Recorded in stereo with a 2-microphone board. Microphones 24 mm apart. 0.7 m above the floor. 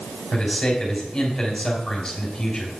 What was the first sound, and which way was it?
A man speaking, 25° left (ahead or behind).